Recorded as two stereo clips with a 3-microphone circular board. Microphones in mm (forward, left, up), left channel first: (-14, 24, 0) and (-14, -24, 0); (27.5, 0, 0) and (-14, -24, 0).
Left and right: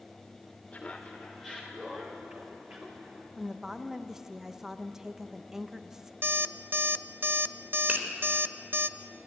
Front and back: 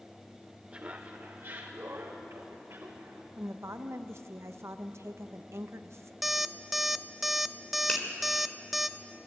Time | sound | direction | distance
0.7 | laughter | 155° left | 1.3 m
3.4 | a woman speaking | 170° right | 1.0 m
6.2 | an alarm clock | 60° right | 0.5 m
7.9 | a finger snap | 30° right | 3.5 m